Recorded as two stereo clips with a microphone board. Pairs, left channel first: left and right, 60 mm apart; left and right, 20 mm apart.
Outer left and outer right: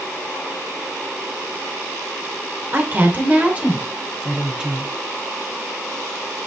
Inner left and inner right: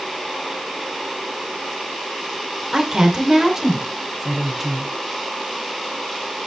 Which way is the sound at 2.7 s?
35° right (ahead or behind).